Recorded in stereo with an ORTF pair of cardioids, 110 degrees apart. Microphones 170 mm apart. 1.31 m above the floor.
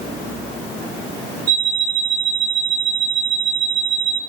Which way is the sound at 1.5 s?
20° right.